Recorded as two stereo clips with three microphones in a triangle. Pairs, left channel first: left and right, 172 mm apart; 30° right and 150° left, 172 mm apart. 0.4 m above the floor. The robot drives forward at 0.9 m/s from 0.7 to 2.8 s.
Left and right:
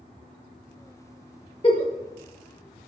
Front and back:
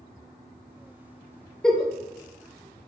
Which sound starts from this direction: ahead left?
A giggle, at 1.6 s.